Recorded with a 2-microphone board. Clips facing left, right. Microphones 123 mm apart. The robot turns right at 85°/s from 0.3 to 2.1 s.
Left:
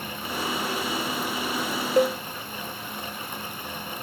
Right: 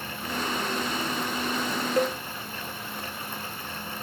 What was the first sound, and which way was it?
A cowbell, 25° left (ahead or behind).